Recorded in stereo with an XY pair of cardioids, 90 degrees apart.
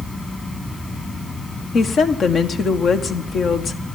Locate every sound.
0.0 s a fan: 35° left, 3 m
1.7 s a woman speaking: 65° left, 1.4 m